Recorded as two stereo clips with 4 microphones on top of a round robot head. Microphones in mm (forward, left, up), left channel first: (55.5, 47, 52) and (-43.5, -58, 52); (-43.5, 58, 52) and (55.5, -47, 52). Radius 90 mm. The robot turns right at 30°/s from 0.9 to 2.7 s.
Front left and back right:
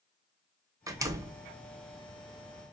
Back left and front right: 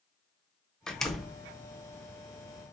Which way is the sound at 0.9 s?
150° right.